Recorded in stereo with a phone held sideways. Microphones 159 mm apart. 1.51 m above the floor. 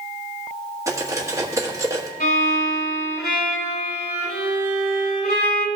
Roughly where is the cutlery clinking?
Right.